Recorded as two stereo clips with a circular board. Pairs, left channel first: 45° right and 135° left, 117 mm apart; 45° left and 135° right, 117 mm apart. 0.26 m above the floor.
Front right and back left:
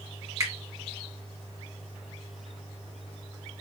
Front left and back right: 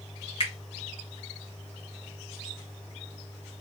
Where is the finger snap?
80° left, 1.5 m.